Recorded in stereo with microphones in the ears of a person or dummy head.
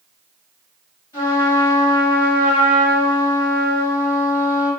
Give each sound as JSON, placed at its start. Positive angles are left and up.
{"t": 1.1, "sound": "a trumpet", "side_deg": 10, "distance_m": 1.8}